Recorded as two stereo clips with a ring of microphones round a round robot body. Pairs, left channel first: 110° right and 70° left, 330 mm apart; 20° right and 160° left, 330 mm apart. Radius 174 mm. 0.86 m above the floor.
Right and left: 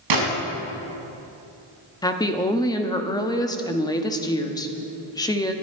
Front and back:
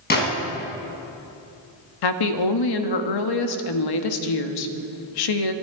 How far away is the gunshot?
About 4.5 m.